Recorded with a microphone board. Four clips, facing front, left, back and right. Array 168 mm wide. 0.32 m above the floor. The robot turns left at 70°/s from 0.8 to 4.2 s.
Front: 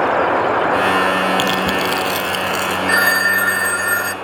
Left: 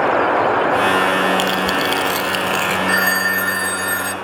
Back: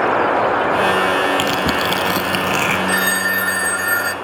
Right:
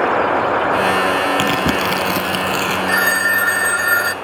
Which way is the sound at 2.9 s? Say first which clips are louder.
Right 1 dB, front 3 dB; straight ahead.